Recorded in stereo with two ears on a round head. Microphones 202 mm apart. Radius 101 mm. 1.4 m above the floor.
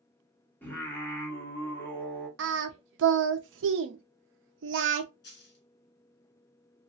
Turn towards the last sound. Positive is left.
turn(degrees=50)  # may be behind; listen again after turning